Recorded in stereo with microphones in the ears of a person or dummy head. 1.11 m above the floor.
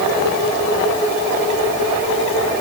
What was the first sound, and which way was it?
Only background noise.